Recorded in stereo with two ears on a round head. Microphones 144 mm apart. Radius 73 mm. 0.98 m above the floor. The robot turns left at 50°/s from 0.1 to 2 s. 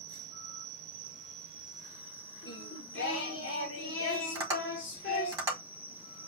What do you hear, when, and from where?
0.0 s an insect: 70° right, 0.7 m; by 6.3 s 165° right, 0.7 m
2.4 s singing: 80° left, 1.4 m
4.3 s tapping: 20° right (ahead or behind), 3 m